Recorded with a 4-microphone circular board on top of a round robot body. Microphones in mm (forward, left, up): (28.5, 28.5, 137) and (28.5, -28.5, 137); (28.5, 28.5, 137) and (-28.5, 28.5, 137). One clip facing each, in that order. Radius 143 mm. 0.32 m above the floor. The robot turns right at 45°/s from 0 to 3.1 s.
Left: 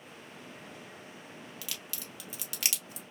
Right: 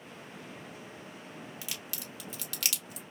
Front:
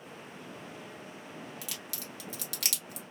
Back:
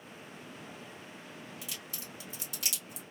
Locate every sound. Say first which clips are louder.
1.6 s a crack: right 1 dB, front 2 dB; 25° right, 1.2 m; by 3.0 s 40° left, 1.2 m